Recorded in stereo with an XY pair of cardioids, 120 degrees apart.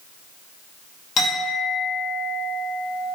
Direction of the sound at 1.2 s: 65° left.